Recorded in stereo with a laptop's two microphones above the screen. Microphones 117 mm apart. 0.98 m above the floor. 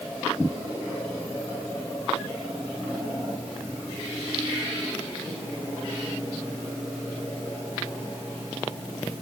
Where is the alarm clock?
No alarm clock in this recording.